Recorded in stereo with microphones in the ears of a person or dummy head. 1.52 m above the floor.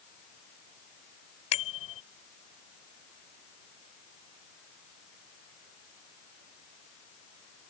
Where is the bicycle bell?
35° left (ahead or behind).